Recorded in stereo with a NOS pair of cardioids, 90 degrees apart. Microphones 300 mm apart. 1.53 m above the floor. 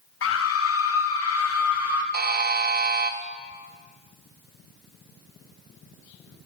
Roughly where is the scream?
Ahead left.